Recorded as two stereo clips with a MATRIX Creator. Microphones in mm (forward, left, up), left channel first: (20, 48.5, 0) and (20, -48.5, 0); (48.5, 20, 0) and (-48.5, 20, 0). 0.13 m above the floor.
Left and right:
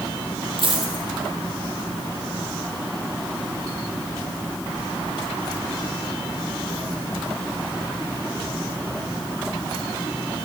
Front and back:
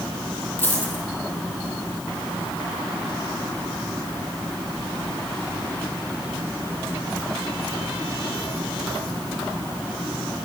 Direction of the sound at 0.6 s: 65° right.